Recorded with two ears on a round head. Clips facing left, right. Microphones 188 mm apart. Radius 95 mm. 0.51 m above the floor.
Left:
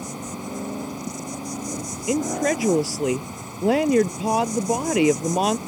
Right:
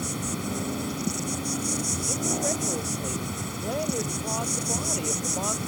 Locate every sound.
0.0 s an insect: 15° right (ahead or behind)
2.1 s a woman speaking: 85° left